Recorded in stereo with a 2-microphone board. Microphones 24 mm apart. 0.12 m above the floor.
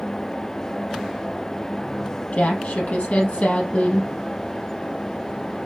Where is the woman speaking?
65° left (ahead or behind), 3 m.